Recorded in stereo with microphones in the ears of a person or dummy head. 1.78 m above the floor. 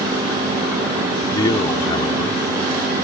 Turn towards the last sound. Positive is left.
turn(degrees=20)  # may be behind; listen again after turning